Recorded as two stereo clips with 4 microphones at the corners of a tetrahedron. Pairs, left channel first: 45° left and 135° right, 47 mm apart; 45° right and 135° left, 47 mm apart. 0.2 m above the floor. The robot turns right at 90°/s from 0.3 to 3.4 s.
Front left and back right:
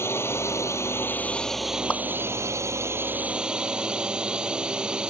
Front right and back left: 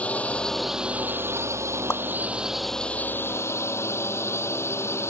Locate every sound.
0.0 s a drone: 15° left; by 5.1 s 65° right
1.9 s a whoosh: 15° right; by 2.0 s 5° right